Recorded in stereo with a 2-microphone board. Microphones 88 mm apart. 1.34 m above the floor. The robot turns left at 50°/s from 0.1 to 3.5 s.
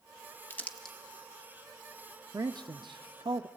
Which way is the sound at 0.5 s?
25° left (ahead or behind).